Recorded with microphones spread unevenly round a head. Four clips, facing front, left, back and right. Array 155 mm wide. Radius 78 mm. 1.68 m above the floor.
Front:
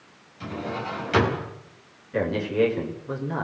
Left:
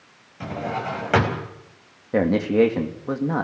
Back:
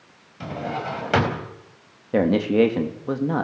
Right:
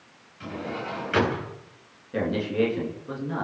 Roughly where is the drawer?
Behind left.